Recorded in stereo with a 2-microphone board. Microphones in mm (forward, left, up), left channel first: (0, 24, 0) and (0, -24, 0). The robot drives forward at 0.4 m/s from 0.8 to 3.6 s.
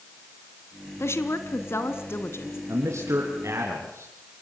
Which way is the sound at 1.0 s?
60° left (ahead or behind).